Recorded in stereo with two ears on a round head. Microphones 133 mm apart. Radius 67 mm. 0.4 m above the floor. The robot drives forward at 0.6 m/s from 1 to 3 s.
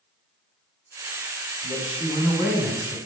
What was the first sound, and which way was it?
A man speaking, 5° right (ahead or behind).